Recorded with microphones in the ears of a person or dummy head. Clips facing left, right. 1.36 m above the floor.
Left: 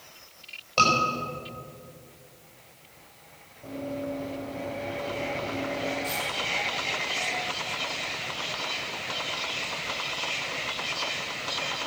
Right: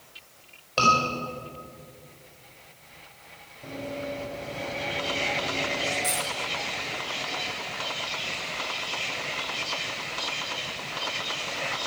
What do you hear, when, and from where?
0.8 s a scream: 5° right (ahead or behind), 4.5 m
3.6 s running footsteps: 10° right (ahead or behind), 5 m
6.0 s a dropped coin: 40° right (ahead or behind), 3.5 m